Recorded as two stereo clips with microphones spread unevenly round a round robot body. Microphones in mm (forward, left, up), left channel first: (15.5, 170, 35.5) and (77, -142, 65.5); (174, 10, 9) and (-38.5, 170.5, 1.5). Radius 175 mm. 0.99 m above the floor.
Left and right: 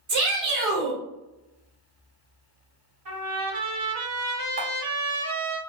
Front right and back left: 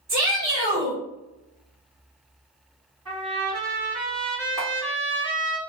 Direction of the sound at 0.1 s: 135° right.